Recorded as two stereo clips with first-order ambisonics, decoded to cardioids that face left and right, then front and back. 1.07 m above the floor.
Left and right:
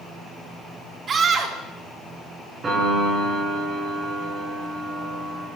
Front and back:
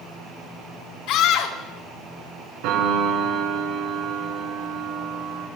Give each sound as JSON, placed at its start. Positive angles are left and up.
{"t": 1.1, "sound": "a scream", "azimuth_deg": -30, "distance_m": 1.8}
{"t": 2.6, "sound": "a piano", "azimuth_deg": -160, "distance_m": 8.5}